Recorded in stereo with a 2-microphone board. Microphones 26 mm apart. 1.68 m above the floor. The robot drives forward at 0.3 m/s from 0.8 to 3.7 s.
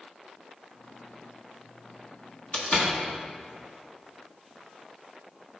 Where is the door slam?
60° left (ahead or behind), 1.5 m; by 3.0 s 55° left (ahead or behind), 1.5 m.